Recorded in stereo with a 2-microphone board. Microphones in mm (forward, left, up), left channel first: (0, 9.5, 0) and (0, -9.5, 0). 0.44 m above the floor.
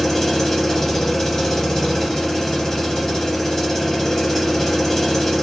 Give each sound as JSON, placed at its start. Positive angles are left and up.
{"t": 0.0, "sound": "an engine running", "side_deg": 20, "distance_m": 1.2}